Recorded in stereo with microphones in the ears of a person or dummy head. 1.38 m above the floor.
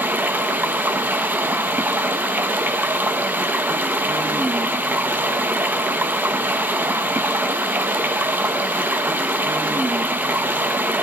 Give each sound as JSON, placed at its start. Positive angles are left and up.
{"t": 0.0, "sound": "running water", "side_deg": -5, "distance_m": 0.9}